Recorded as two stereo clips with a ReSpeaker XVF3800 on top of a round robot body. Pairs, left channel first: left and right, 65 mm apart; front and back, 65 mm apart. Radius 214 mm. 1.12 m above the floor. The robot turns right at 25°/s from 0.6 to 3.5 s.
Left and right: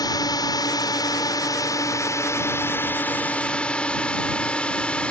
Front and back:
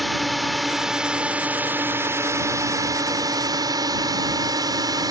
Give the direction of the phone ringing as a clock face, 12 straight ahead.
I don't hear a phone ringing.